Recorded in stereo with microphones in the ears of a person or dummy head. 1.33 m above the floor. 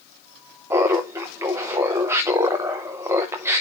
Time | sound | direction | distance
0.7 | laughter | 15° right (ahead or behind) | 0.8 m